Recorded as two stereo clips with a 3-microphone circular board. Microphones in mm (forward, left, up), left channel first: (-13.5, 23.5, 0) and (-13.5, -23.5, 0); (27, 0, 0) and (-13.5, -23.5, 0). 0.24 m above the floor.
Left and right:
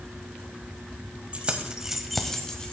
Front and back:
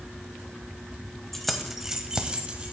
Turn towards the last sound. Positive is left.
turn(degrees=155)